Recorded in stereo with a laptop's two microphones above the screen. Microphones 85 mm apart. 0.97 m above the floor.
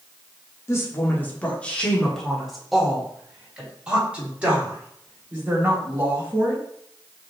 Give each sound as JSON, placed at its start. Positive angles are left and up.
{"t": 0.7, "sound": "a woman speaking", "side_deg": 35, "distance_m": 1.1}